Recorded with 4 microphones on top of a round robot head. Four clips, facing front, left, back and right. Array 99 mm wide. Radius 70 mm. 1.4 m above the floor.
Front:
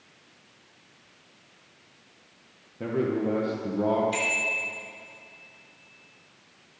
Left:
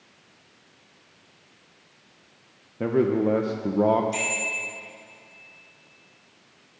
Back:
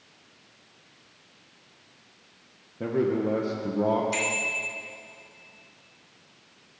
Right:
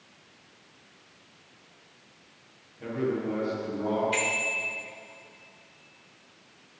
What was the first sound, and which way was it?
A man speaking, 100° left.